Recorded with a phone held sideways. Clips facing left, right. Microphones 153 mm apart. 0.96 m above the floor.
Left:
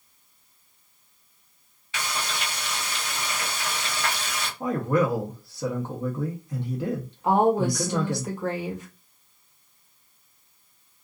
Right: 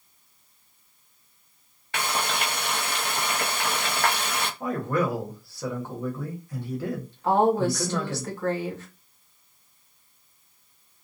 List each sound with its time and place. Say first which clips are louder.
1.9 s frying: right 4 dB; 55° right (ahead or behind), 0.6 m
4.6 s a man speaking: left 3 dB; 20° left (ahead or behind), 0.8 m
7.2 s a woman speaking: even; 15° left (ahead or behind), 1.1 m